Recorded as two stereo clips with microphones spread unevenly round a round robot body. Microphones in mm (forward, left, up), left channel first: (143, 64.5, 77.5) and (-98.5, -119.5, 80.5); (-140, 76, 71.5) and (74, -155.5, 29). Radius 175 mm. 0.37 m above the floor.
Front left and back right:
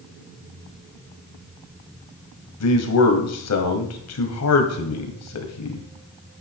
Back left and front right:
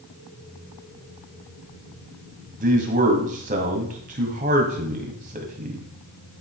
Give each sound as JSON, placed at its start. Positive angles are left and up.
{"t": 2.6, "sound": "a man speaking", "azimuth_deg": 15, "distance_m": 2.0}